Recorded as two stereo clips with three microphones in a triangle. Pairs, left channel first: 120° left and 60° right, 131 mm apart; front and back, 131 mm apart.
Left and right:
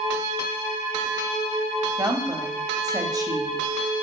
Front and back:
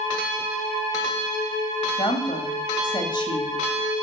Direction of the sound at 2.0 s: 20° right.